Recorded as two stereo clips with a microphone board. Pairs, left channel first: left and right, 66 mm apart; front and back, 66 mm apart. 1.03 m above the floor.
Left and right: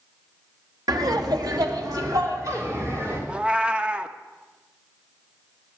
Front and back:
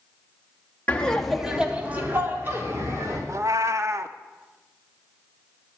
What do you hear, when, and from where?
0.9 s laughter: 70° right, 1.7 m; by 3.2 s 135° right, 3.5 m
3.3 s a cat meowing: 160° right, 0.6 m